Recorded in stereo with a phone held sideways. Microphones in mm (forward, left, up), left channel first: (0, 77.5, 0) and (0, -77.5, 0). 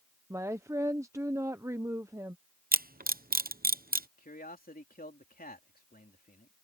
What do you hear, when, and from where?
0.3 s a woman speaking: 20° right (ahead or behind)
2.7 s a camera shutter: 70° right (ahead or behind)
4.2 s a man speaking: 70° left (ahead or behind)